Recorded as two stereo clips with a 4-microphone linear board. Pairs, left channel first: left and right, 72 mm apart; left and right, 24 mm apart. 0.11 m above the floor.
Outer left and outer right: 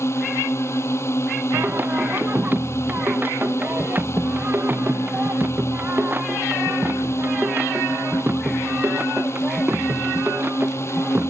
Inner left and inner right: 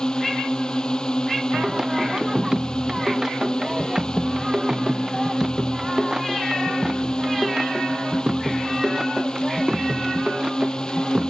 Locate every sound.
0.0 s a drone: 35° left (ahead or behind)
1.5 s singing: 25° right (ahead or behind)